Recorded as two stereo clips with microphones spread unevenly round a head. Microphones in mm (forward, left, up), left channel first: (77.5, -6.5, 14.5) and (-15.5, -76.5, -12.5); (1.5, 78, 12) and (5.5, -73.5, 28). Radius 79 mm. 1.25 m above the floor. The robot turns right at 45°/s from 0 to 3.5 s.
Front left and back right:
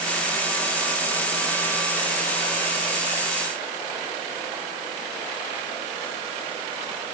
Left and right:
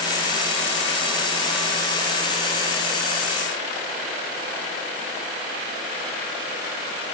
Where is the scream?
I don't hear a scream.